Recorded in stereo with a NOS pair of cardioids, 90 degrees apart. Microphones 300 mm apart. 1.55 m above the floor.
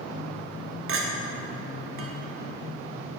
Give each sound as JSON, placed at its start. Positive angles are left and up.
{"t": 0.9, "sound": "a clink", "azimuth_deg": -50, "distance_m": 1.4}